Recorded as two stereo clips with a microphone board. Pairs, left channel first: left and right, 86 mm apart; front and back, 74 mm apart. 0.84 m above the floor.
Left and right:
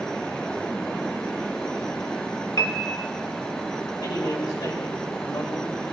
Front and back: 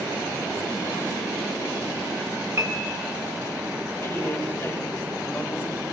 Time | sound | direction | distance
2.6 | a piano | 135° left | 1.2 m
4.0 | a man speaking | 55° left | 4 m